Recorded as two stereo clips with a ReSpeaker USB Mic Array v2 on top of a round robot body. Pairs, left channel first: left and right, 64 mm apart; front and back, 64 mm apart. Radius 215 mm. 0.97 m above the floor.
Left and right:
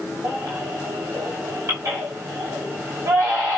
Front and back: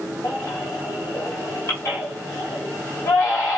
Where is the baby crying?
45° right, 0.5 m.